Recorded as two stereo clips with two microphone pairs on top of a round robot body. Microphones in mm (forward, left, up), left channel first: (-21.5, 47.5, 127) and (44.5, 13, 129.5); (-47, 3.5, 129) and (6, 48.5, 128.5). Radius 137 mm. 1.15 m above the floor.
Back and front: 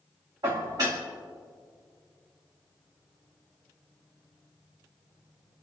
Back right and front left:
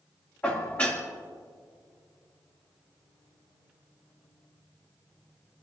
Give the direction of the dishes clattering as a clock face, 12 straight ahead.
2 o'clock.